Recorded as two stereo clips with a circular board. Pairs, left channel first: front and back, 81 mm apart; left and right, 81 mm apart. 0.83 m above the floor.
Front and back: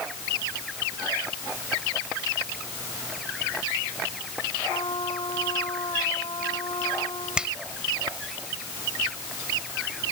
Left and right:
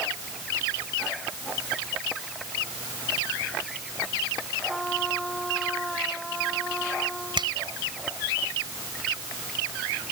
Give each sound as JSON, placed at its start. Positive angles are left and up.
{"t": 4.7, "sound": "a trumpet", "azimuth_deg": 5}
{"t": 7.4, "sound": "a finger snap", "azimuth_deg": -100}